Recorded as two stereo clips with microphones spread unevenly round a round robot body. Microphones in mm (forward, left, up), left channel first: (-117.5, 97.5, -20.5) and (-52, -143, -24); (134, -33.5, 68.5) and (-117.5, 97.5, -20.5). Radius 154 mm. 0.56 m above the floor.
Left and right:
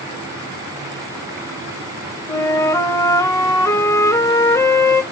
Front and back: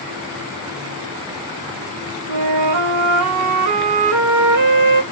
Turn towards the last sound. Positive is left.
turn(degrees=-175)